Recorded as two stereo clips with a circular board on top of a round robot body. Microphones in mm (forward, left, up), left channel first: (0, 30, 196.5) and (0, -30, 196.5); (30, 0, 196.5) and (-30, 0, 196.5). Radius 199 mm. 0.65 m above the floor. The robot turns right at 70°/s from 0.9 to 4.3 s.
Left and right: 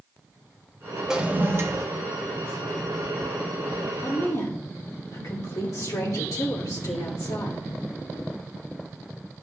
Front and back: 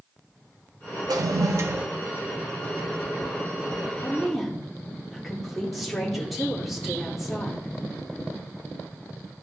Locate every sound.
1.1 s a toilet flushing: 175° right, 0.8 m; by 1.9 s 120° right, 0.8 m
4.0 s a woman speaking: 70° left, 3 m; by 7.7 s 90° left, 3 m